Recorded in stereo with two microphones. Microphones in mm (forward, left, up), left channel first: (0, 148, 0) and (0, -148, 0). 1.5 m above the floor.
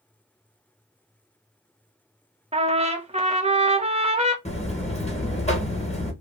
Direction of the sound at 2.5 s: 20° right (ahead or behind).